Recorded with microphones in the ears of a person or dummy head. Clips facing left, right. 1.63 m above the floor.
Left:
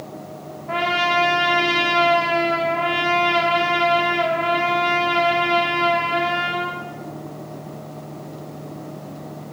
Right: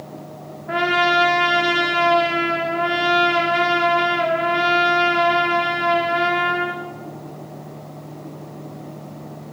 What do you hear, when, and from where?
0.7 s a trumpet: 10° right (ahead or behind), 0.7 m